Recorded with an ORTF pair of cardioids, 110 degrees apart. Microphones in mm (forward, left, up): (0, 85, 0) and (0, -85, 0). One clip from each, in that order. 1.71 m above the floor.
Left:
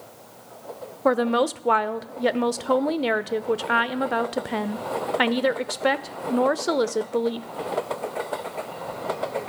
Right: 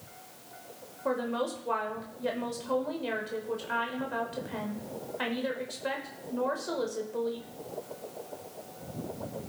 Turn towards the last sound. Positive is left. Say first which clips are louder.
# left 10 dB
turn(degrees=55)